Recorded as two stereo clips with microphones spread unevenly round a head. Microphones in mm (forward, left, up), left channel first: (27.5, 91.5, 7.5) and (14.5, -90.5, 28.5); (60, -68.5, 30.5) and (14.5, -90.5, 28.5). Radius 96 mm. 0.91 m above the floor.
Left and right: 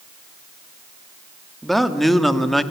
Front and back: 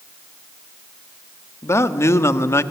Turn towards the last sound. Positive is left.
turn(degrees=0)